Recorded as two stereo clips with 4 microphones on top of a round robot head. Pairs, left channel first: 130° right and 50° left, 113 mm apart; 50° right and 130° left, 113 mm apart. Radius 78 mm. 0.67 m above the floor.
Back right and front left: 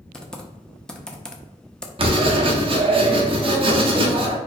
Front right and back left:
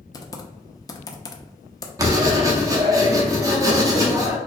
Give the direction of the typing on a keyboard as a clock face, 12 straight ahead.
2 o'clock.